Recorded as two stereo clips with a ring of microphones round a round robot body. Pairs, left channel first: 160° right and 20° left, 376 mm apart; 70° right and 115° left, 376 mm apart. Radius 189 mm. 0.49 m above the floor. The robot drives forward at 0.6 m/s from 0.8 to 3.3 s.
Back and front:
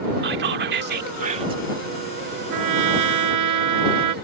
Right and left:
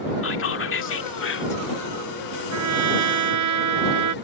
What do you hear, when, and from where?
0.2 s whispering: 25° right; by 1.6 s 45° right
2.5 s a trumpet: 65° left